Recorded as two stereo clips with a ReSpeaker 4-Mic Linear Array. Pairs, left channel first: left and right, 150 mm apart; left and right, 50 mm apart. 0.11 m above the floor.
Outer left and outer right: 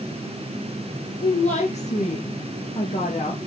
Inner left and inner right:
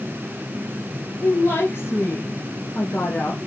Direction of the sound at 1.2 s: 50° left (ahead or behind).